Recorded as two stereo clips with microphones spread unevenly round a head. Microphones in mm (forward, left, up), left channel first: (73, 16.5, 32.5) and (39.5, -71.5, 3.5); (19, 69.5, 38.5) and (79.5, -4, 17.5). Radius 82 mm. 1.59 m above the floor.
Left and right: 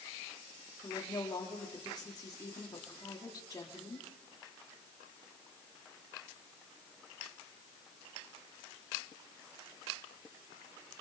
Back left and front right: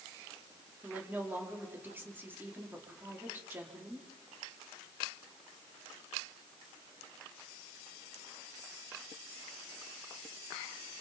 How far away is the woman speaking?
About 4.5 m.